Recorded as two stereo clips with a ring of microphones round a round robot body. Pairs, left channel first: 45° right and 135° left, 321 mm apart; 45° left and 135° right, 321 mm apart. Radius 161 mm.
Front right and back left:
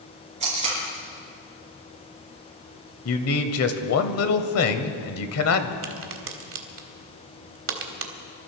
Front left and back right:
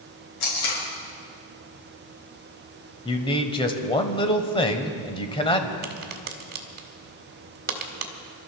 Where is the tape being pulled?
65° left, 6 m.